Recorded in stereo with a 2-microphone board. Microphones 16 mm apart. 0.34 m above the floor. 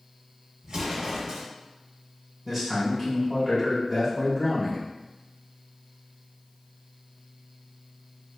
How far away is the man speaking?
About 1.5 m.